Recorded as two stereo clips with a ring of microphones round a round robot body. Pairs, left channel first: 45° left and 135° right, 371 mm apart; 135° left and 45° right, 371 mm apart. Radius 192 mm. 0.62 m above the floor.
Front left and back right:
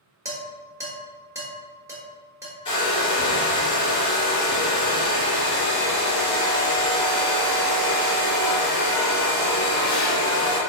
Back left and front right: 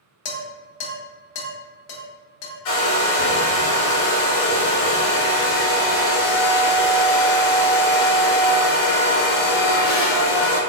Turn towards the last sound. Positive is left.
turn(degrees=120)